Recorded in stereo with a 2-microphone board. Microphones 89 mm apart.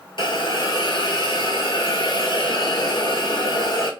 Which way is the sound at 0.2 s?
60° left (ahead or behind).